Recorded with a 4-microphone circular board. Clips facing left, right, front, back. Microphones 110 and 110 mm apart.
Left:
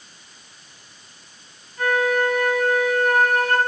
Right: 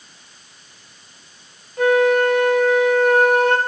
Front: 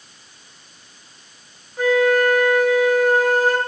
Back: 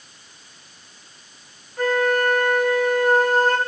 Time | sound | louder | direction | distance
1.8 | a flute | right 6 dB, front 4 dB | 80° right | 4 m